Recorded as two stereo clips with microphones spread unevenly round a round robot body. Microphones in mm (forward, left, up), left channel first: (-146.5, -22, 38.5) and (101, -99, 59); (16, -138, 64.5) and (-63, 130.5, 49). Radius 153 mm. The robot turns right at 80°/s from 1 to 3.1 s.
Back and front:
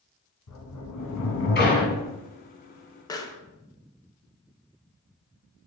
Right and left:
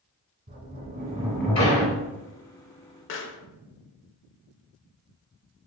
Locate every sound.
0.5 s a sliding door: 170° left, 2 m; by 2.1 s 105° right, 2 m
3.1 s a pop: 125° right, 0.6 m; by 3.4 s 120° right, 0.6 m